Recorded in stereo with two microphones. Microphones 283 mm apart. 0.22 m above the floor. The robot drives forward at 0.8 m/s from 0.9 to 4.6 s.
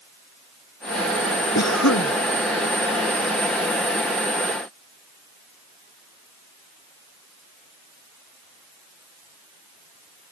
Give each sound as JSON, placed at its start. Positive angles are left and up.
{"t": 1.6, "sound": "a cough", "side_deg": 65}